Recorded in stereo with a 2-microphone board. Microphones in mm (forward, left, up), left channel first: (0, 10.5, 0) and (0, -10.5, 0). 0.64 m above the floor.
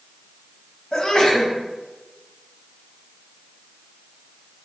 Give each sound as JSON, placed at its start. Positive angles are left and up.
{"t": 0.9, "sound": "a sneeze", "side_deg": 45, "distance_m": 1.3}